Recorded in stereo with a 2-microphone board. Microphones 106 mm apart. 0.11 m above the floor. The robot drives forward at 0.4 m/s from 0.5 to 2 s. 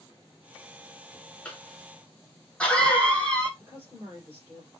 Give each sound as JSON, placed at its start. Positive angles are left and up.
{"t": 1.4, "sound": "a cough", "side_deg": 10, "distance_m": 1.2}
{"t": 3.6, "sound": "a woman speaking", "side_deg": -20, "distance_m": 2.5}